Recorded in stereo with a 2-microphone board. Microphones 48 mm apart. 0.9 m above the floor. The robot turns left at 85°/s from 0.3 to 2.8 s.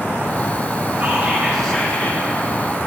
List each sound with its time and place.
1.0 s whispering: 130° right, 2.5 m; by 2.2 s 125° left, 2.5 m